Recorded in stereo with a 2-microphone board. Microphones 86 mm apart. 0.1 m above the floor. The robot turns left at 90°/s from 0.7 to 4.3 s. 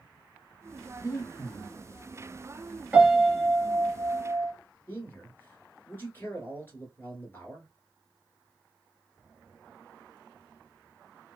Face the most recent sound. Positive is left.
turn(degrees=25)  # may be behind; listen again after turning